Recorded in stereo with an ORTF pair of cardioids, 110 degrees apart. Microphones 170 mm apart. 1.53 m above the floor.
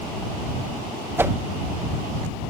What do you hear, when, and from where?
1.2 s a whoosh: 15° right